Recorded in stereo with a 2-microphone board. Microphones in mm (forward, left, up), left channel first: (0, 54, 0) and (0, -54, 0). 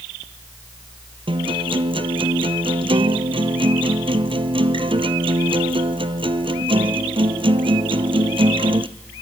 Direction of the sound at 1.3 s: 55° right (ahead or behind).